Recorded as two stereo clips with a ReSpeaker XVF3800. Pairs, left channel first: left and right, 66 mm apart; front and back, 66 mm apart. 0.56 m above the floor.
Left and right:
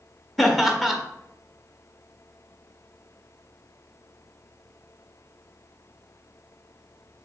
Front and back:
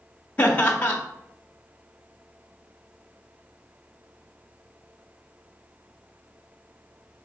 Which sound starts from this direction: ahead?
Laughter, at 0.4 s.